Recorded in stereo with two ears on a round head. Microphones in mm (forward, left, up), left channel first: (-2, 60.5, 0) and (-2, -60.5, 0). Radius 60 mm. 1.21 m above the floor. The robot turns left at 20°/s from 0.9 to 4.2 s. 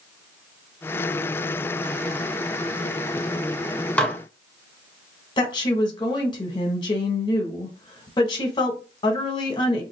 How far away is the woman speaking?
About 1.0 m.